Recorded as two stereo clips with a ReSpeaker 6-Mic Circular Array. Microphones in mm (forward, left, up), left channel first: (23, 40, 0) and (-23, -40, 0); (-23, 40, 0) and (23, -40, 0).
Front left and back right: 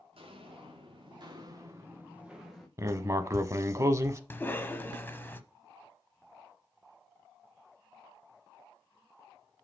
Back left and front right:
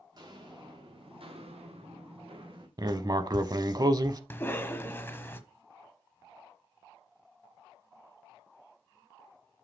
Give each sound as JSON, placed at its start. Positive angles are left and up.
{"t": 0.1, "sound": "footsteps", "azimuth_deg": -105, "distance_m": 3.5}
{"t": 2.8, "sound": "writing", "azimuth_deg": -80, "distance_m": 0.6}
{"t": 4.3, "sound": "a cough", "azimuth_deg": 90, "distance_m": 1.0}